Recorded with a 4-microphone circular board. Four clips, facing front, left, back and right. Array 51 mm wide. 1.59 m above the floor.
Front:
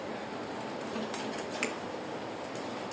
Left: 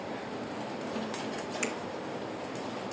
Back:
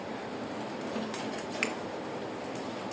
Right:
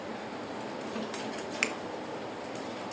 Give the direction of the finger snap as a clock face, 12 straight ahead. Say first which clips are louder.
Right 4 dB, back 3 dB; 4 o'clock.